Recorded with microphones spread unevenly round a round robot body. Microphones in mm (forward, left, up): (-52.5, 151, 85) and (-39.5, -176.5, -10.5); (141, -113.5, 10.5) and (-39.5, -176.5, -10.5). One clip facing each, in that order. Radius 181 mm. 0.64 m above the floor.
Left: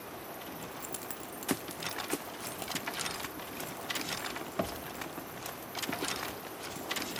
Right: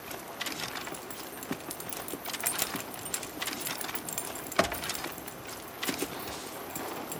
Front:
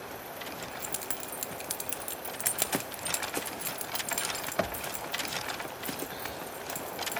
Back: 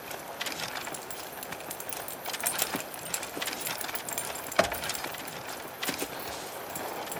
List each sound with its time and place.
0.6 s keys jangling: 20° left, 1.0 m; by 7.2 s 95° right, 3.5 m